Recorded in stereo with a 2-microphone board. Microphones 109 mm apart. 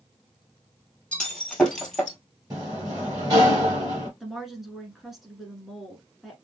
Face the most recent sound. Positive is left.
turn(degrees=0)  # may be behind; listen again after turning